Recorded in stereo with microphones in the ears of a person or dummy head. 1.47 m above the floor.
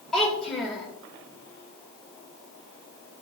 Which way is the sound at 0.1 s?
10° left (ahead or behind).